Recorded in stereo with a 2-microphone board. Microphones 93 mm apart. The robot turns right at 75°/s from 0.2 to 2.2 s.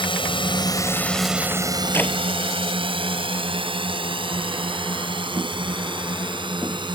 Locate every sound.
0.0 s a drone: 70° left (ahead or behind); by 7.0 s 60° right (ahead or behind)
1.9 s a clap: 25° left (ahead or behind); by 2.1 s 10° left (ahead or behind)